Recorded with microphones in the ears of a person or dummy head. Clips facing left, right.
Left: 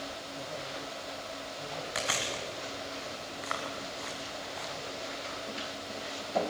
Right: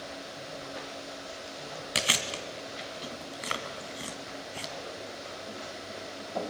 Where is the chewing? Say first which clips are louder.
Right 2 dB; 40° right (ahead or behind), 1.9 m.